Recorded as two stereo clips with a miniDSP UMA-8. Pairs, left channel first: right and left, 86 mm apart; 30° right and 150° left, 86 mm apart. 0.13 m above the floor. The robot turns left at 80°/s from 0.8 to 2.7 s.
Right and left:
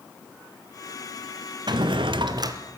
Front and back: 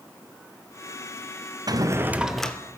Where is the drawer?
115° left, 0.8 m; by 2.6 s 45° left, 0.8 m.